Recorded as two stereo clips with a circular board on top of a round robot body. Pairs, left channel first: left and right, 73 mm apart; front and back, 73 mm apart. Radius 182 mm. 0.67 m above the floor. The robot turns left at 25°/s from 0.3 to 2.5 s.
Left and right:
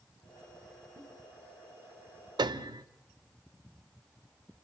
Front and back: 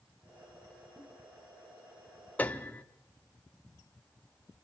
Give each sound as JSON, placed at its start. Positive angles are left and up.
{"t": 1.0, "sound": "a giggle", "azimuth_deg": -110, "distance_m": 8.0}
{"t": 2.4, "sound": "a piano", "azimuth_deg": -70, "distance_m": 0.8}